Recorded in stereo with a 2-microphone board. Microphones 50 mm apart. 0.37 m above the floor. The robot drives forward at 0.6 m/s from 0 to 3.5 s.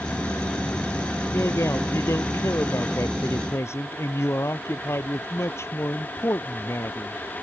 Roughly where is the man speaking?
Left.